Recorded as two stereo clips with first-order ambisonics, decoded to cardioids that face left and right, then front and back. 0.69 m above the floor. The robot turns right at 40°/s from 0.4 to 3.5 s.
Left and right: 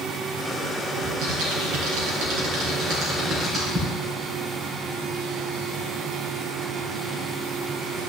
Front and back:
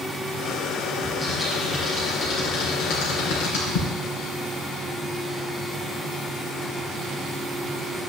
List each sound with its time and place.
1.0 s typing on a keyboard: 120° right, 3.5 m; by 3.9 s 20° right, 3.5 m